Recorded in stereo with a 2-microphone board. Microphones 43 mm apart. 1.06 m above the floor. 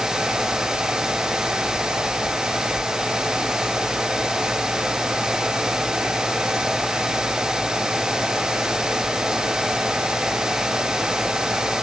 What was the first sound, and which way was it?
Only background noise.